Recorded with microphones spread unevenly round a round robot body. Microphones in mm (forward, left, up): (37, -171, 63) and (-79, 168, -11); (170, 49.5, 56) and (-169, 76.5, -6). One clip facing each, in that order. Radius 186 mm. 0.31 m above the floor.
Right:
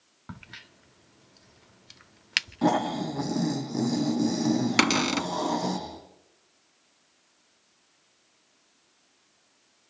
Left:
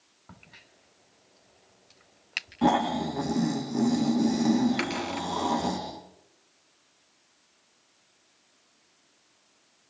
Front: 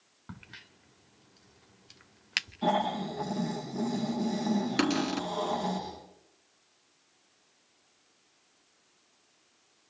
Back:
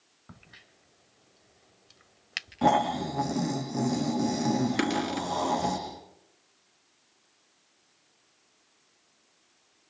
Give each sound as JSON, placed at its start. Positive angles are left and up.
{"t": 0.3, "sound": "a crack", "azimuth_deg": -70, "distance_m": 1.1}
{"t": 2.6, "sound": "snoring", "azimuth_deg": -165, "distance_m": 8.5}
{"t": 4.8, "sound": "a cupboard door", "azimuth_deg": -90, "distance_m": 1.2}